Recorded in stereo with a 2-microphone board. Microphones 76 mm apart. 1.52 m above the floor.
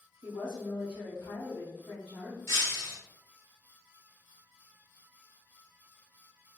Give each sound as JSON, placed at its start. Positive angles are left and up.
{"t": 0.2, "sound": "a woman speaking", "side_deg": 60, "distance_m": 1.2}
{"t": 2.5, "sound": "breaking glass", "side_deg": 30, "distance_m": 2.0}